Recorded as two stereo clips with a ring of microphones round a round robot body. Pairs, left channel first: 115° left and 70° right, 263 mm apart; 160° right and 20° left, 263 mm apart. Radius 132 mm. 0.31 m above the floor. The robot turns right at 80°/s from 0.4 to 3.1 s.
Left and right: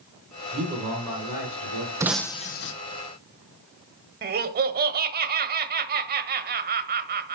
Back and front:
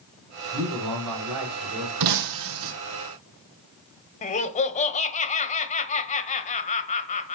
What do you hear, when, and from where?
0.5 s a man speaking: 15° right, 4 m; by 1.9 s 100° left, 4 m
2.0 s breaking glass: 10° left, 1.3 m; by 2.7 s 70° left, 1.3 m
4.2 s laughter: 105° right, 1.3 m